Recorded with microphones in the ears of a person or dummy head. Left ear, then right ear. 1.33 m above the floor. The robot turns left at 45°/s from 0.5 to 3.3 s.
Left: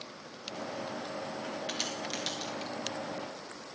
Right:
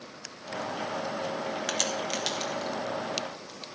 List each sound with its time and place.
1.7 s a crack: 45° right (ahead or behind), 1.2 m; by 2.7 s centre (ahead or behind), 1.2 m